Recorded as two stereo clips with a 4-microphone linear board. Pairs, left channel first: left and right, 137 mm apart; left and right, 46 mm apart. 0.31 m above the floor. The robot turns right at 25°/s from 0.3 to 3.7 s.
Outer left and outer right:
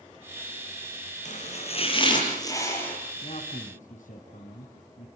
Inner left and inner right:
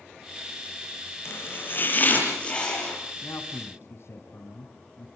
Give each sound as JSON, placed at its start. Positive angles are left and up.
{"t": 1.2, "sound": "chopping", "azimuth_deg": 125, "distance_m": 6.0}
{"t": 3.2, "sound": "a man speaking", "side_deg": 50, "distance_m": 2.5}